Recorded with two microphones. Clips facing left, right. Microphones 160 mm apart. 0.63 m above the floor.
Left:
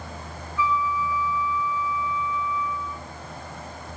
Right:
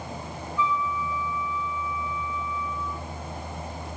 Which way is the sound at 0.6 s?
10° left (ahead or behind).